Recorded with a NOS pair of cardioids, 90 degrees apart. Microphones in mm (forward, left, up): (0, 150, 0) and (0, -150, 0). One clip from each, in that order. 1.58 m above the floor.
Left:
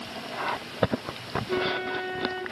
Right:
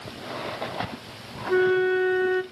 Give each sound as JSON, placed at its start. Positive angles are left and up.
{"t": 1.5, "sound": "a flute", "azimuth_deg": -25, "distance_m": 0.6}